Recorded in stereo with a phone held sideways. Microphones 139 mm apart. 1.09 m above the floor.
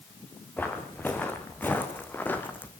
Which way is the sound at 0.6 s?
10° left (ahead or behind).